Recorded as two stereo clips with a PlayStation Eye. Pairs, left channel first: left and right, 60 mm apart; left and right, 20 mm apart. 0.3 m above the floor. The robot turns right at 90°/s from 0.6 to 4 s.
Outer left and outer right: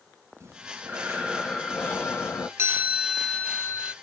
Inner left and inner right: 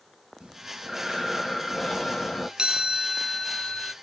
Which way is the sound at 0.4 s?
80° right.